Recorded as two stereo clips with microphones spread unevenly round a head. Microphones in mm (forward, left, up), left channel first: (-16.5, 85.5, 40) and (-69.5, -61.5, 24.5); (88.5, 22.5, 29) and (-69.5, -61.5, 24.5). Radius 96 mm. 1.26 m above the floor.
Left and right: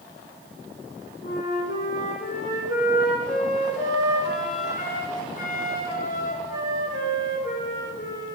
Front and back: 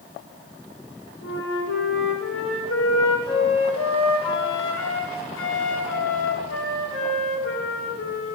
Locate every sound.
1.2 s a flute: 20° left, 1.6 m